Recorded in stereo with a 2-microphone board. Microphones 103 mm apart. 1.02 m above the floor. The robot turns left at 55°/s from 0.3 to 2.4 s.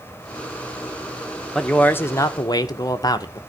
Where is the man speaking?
175° left, 0.8 m; by 3.4 s 130° left, 0.8 m.